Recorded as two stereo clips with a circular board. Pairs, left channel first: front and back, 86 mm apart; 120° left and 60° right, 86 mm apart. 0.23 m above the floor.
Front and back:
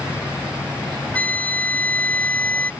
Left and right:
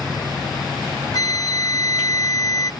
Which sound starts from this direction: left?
A flute, at 1.1 s.